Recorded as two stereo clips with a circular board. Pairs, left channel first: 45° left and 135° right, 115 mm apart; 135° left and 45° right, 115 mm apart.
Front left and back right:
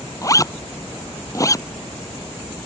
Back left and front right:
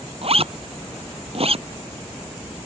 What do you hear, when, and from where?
0.2 s a zipper: 15° right